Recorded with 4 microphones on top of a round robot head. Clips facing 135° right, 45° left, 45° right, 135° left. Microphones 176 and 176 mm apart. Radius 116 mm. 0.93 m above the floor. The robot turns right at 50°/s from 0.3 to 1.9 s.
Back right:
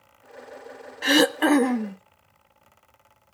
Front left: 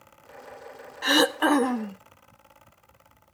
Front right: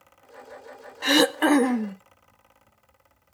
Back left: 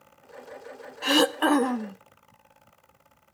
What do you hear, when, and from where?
1.0 s throat clearing: 120° right, 0.6 m; by 2.0 s 75° right, 0.6 m